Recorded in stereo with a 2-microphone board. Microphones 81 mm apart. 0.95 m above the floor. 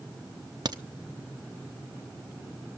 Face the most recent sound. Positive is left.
turn(degrees=-55)  # may be behind; listen again after turning